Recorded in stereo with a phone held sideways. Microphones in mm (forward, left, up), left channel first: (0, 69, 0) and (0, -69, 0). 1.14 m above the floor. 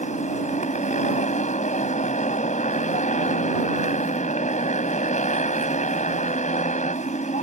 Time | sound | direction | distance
0.0 | a motorcycle | 75° left (ahead or behind) | ?